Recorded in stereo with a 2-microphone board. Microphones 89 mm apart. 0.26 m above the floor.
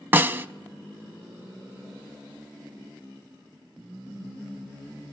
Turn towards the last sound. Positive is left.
turn(degrees=-25)  # may be behind; listen again after turning